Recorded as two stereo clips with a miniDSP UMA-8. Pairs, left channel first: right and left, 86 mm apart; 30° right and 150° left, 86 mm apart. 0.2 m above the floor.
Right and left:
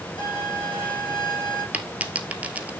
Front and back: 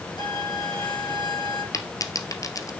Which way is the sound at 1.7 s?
15° left.